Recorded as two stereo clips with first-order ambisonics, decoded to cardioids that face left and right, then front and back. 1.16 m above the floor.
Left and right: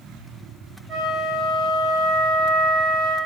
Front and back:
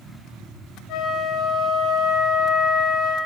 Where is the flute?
30° right, 2 m.